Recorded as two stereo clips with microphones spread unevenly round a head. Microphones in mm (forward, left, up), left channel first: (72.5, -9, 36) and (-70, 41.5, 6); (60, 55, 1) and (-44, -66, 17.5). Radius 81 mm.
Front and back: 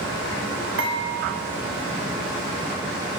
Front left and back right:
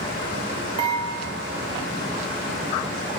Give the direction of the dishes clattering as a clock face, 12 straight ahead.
6 o'clock.